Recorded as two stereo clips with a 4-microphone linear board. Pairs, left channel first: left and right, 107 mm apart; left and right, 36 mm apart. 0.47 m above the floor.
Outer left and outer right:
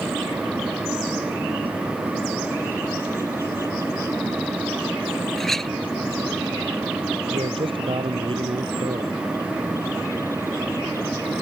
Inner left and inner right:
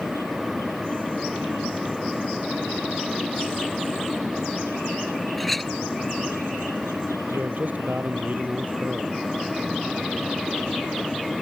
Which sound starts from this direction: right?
A man speaking, at 7.3 s.